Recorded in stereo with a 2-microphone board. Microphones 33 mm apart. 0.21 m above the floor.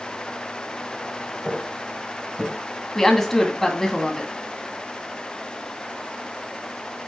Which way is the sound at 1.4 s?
5° left (ahead or behind).